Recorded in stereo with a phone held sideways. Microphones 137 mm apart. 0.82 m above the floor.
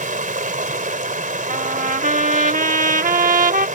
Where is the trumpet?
70° right (ahead or behind).